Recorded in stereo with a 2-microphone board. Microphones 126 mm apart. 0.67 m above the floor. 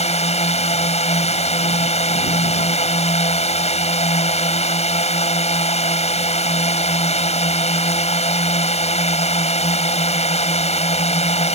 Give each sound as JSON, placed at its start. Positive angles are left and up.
{"t": 0.0, "sound": "a drone", "side_deg": 60}